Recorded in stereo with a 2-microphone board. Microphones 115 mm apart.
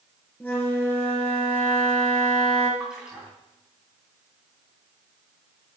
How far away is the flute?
About 3 m.